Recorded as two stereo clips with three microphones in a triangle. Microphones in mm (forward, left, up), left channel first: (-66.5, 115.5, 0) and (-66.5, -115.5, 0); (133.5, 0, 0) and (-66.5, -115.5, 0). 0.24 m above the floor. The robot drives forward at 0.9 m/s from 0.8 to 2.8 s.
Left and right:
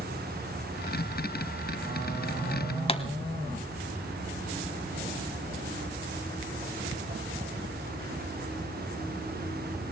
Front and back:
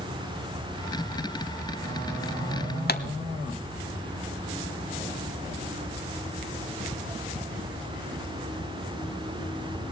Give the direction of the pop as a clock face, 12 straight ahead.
11 o'clock.